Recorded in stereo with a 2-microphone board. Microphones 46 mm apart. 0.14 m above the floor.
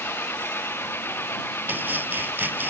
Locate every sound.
0.0 s an engine running: 55° left (ahead or behind)
1.7 s chopping: 45° right (ahead or behind)